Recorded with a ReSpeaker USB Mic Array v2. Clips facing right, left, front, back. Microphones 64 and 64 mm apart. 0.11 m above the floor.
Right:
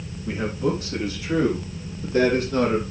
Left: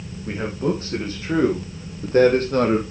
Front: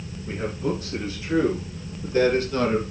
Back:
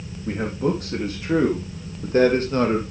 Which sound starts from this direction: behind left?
A man speaking, at 0.3 s.